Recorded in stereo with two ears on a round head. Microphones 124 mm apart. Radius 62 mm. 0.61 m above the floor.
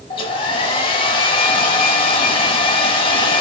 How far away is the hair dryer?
About 0.8 m.